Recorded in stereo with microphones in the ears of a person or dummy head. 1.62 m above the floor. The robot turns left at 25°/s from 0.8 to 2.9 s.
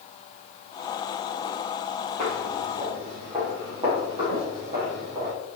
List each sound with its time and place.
2.2 s footsteps: 25° right (ahead or behind), 2 m